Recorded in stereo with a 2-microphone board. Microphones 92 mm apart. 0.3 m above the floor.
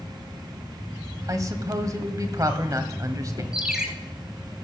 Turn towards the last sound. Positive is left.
turn(degrees=-10)  # may be behind; listen again after turning